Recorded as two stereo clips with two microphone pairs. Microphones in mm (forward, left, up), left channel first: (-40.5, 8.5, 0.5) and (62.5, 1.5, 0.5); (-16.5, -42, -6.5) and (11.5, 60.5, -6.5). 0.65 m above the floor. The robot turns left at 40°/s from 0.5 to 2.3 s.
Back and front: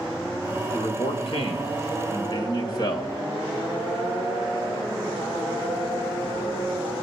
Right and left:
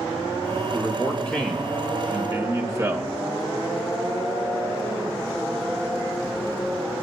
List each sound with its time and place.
0.7 s a man speaking: 165° right, 3 m; by 3.1 s 135° left, 3 m